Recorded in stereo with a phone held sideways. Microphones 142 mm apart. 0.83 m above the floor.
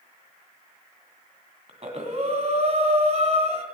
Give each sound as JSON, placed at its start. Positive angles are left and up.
{"t": 1.7, "sound": "breathing", "side_deg": -50, "distance_m": 1.8}